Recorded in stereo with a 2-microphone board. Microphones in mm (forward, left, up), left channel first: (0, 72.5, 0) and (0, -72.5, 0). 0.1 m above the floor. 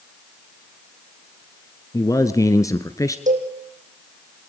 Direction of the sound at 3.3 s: 60° right (ahead or behind).